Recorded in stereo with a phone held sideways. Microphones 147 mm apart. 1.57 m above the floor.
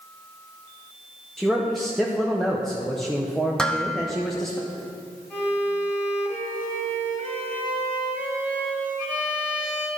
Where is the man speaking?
Centre (ahead or behind), 0.7 m.